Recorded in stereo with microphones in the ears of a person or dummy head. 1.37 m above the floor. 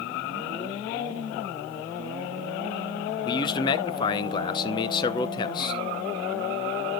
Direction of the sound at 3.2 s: 25° left (ahead or behind).